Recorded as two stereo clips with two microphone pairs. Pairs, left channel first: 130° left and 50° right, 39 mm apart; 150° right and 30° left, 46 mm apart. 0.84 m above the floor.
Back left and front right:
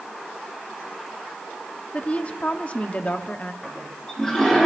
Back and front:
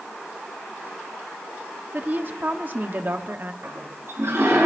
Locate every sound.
1.9 s a woman speaking: 80° left, 1.2 m
3.6 s a toilet flushing: 55° left, 6 m